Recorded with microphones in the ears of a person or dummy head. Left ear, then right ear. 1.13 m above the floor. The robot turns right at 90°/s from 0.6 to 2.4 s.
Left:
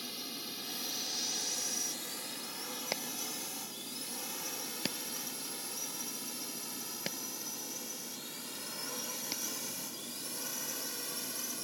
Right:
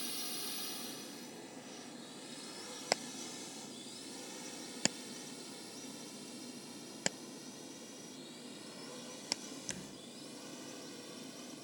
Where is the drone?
5° right (ahead or behind); by 11.7 s 45° left (ahead or behind).